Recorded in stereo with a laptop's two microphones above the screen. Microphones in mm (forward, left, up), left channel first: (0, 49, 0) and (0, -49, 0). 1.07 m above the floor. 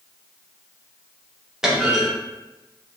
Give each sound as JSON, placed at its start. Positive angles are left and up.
{"t": 1.6, "sound": "a clunk", "side_deg": -5, "distance_m": 0.7}